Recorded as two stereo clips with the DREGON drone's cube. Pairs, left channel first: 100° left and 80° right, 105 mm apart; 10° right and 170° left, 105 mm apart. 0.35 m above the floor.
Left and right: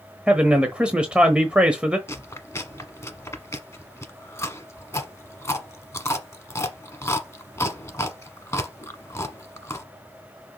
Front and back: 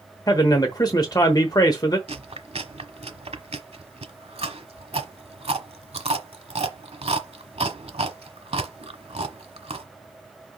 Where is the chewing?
160° left, 1.1 m.